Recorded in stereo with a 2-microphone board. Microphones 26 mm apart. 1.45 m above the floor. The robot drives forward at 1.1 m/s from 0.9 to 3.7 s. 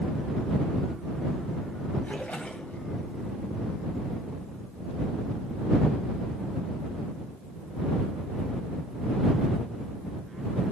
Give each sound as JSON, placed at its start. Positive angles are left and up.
{"t": 2.0, "sound": "a splash", "side_deg": 55, "distance_m": 2.5}